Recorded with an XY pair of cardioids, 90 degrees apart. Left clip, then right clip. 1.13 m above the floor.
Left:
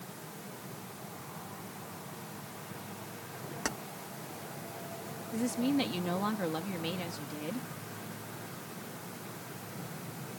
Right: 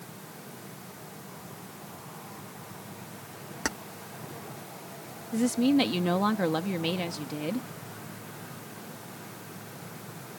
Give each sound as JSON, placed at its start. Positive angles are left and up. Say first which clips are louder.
{"t": 3.6, "sound": "keys jangling", "louder": "right 4 dB", "azimuth_deg": -25}
{"t": 5.3, "sound": "a woman speaking", "louder": "right 7 dB", "azimuth_deg": -50}